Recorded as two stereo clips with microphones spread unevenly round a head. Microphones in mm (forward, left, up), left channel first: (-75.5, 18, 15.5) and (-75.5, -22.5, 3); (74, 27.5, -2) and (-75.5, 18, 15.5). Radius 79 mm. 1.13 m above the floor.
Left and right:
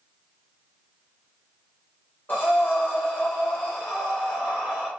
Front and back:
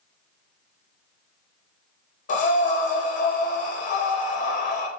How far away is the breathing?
About 0.6 m.